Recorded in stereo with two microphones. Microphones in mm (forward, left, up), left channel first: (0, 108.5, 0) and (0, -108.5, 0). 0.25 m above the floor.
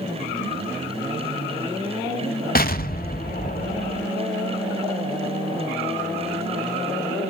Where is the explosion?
45° left (ahead or behind), 0.6 m.